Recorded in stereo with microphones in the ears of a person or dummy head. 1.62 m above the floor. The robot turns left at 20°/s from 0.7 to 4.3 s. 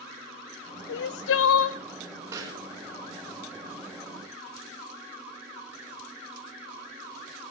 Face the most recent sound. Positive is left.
turn(degrees=-55)  # may be behind; listen again after turning